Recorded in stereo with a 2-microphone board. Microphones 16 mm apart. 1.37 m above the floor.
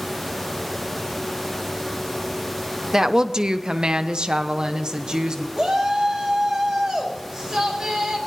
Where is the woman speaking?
35° right (ahead or behind), 0.8 m; by 5.5 s 45° right (ahead or behind), 1.7 m.